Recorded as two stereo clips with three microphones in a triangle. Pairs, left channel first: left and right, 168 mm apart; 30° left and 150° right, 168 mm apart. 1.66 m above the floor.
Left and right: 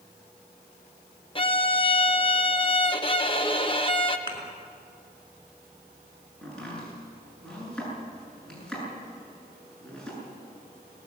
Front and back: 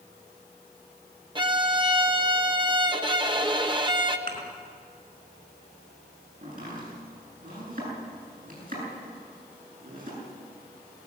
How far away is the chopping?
About 9 m.